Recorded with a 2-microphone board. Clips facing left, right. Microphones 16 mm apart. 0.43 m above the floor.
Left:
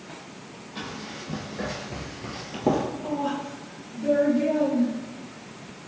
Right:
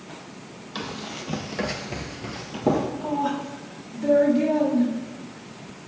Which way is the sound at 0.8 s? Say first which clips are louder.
Right 3 dB; 55° right (ahead or behind).